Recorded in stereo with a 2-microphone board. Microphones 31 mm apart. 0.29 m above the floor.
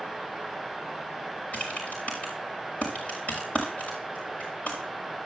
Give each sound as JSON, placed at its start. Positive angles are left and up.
{"t": 1.5, "sound": "typing on a keyboard", "side_deg": 50, "distance_m": 6.0}